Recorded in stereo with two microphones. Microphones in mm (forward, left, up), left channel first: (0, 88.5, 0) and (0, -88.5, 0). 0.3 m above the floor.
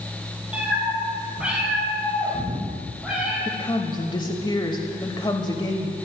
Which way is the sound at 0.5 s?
5° right (ahead or behind).